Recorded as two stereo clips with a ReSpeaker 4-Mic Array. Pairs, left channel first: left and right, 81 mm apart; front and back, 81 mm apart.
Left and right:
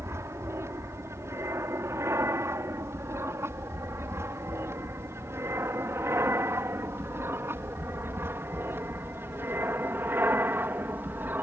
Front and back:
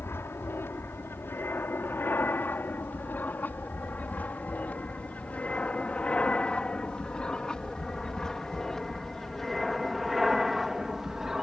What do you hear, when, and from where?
0.0 s an aircraft: 50° right; by 11.4 s 105° right